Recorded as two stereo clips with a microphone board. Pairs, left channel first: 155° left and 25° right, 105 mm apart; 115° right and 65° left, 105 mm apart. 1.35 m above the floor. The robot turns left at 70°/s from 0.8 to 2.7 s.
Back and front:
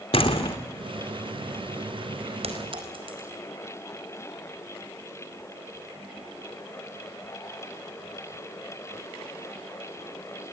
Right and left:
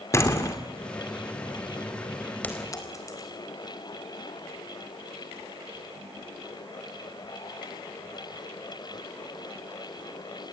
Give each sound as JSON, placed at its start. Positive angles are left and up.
{"t": 0.1, "sound": "a door slam", "azimuth_deg": -175, "distance_m": 3.0}
{"t": 2.4, "sound": "a clink", "azimuth_deg": -40, "distance_m": 4.0}